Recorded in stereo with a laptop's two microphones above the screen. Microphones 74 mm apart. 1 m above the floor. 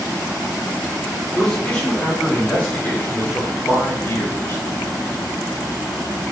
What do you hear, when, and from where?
1.3 s a man speaking: 10° left (ahead or behind), 3.5 m; by 4.6 s 35° left (ahead or behind), 2.5 m